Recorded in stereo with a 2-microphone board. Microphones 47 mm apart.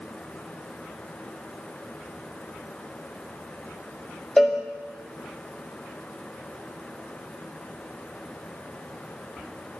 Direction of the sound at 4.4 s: 5° left (ahead or behind).